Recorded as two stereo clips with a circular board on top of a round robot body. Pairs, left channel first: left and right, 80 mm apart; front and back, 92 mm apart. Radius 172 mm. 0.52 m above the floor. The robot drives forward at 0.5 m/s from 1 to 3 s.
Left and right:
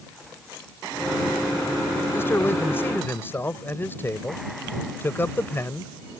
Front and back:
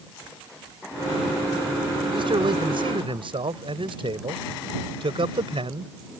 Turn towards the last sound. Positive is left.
turn(degrees=155)